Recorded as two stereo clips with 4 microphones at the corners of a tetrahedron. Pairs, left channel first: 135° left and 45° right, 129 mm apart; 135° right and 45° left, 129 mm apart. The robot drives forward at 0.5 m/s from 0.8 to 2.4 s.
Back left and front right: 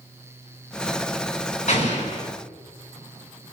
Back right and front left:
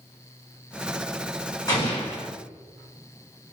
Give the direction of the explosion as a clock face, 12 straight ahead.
6 o'clock.